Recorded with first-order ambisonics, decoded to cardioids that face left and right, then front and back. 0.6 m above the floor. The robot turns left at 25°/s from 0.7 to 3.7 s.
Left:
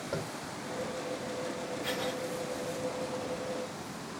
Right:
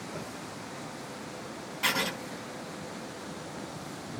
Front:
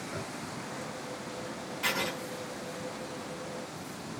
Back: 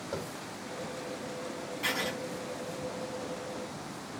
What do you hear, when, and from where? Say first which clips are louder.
0.1 s tapping: left 6 dB, back 4 dB; 145° left, 5 m
1.8 s writing: right 8 dB, front 1 dB; 90° right, 4 m; by 2.1 s 100° right, 4 m